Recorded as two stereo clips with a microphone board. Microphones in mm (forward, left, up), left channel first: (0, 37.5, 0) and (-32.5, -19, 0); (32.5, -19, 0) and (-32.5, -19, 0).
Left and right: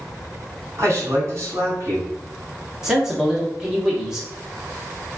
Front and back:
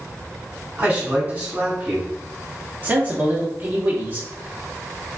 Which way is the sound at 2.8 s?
165° left.